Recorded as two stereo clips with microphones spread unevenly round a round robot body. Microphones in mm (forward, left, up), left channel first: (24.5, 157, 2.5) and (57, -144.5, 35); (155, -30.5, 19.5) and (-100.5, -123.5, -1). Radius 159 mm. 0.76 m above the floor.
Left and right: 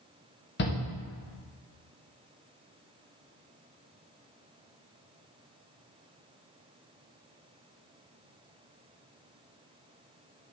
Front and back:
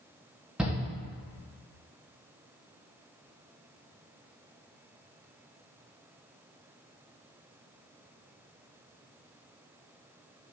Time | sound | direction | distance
0.6 | a shout | 120° left | 0.9 m